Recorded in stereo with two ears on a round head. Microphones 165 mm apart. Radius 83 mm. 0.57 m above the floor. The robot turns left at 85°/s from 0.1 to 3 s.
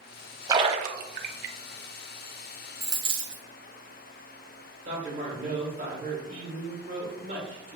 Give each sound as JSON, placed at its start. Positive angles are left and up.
{"t": 0.5, "sound": "a splash", "side_deg": -20, "distance_m": 0.5}
{"t": 2.8, "sound": "a dropped coin", "side_deg": -10, "distance_m": 1.3}
{"t": 4.8, "sound": "a man speaking", "side_deg": -40, "distance_m": 2.0}